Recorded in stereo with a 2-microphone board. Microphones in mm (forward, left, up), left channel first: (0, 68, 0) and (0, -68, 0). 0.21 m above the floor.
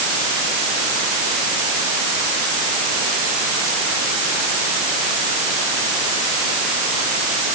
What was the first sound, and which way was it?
Only background noise.